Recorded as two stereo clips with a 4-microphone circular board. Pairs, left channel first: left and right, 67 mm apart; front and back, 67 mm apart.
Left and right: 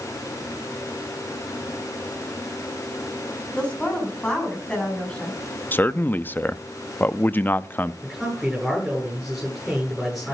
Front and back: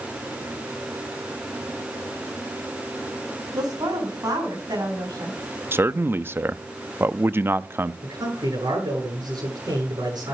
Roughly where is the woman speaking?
Behind.